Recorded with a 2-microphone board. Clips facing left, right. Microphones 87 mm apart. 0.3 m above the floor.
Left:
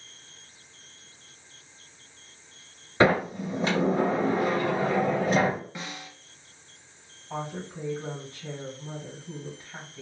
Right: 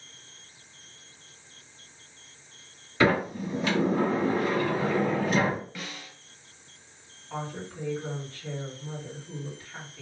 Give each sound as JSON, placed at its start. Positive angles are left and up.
{"t": 3.0, "sound": "a sliding door", "side_deg": 35, "distance_m": 1.5}
{"t": 5.8, "sound": "a snare drum", "side_deg": 25, "distance_m": 0.6}
{"t": 7.3, "sound": "a woman speaking", "side_deg": 25, "distance_m": 2.0}